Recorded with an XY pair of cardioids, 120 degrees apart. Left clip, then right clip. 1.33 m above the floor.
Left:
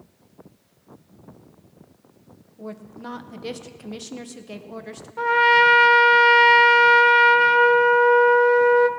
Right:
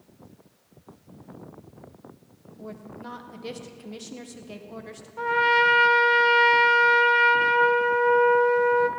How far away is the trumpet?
About 0.6 m.